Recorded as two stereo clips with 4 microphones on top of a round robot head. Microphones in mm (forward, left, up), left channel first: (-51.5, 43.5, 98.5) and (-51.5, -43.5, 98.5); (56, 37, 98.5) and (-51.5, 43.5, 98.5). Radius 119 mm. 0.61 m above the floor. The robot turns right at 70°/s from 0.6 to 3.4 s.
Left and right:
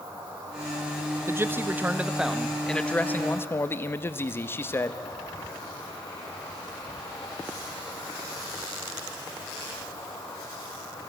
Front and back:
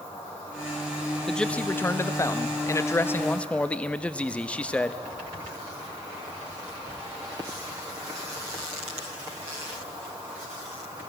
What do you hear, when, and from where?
0.0 s an insect: 60° right, 3.5 m; by 11.1 s 135° left, 3.5 m
1.3 s a man speaking: 85° right, 0.6 m; by 5.0 s 65° left, 0.6 m